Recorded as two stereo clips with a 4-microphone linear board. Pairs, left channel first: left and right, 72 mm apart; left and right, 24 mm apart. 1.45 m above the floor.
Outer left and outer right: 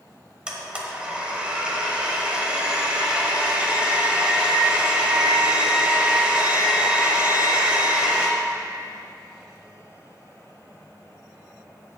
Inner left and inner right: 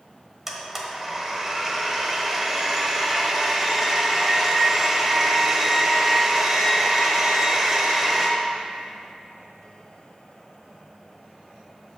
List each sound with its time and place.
0.5 s a blender: 15° right (ahead or behind), 1.2 m